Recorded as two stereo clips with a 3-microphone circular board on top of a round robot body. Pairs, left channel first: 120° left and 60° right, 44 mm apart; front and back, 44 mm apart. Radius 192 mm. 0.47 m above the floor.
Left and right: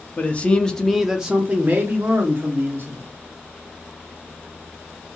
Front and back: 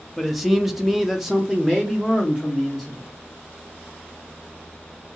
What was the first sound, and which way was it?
A man speaking, 90° left.